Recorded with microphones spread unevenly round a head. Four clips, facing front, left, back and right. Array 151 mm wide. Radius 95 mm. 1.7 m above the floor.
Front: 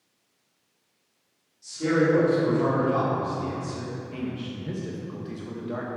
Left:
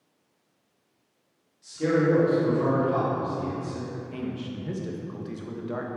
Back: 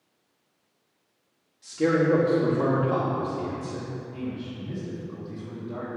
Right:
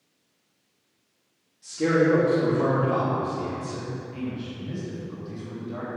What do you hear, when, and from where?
1.6 s a man speaking: straight behind, 3.5 m; by 3.9 s 175° right, 4.5 m
4.1 s a man speaking: 35° left, 2.5 m